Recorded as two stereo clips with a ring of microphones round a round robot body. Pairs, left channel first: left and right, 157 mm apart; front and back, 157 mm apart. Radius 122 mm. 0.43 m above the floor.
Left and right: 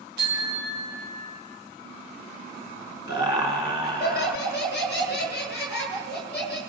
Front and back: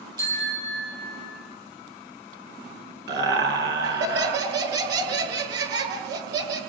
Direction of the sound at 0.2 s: 110° right.